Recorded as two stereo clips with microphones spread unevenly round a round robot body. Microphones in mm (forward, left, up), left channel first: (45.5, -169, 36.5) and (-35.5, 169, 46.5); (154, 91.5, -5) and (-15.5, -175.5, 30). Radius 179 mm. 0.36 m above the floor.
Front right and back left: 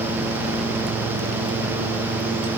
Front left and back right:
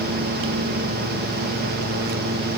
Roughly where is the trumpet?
I don't hear a trumpet.